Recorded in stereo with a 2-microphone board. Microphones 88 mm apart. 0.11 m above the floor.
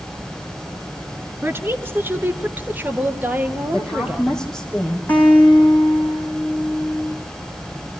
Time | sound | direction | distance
1.4 | a woman speaking | 25° right (ahead or behind) | 1.3 m
3.7 | a woman speaking | 5° left (ahead or behind) | 6 m
5.1 | a guitar | 20° left (ahead or behind) | 6.5 m